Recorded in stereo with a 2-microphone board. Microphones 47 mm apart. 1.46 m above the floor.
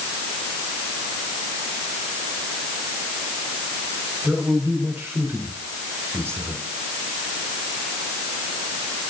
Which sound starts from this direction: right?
A man speaking, at 4.2 s.